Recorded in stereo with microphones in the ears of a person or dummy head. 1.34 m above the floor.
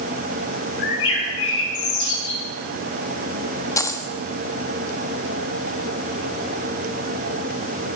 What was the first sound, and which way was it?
A bird, 80° left.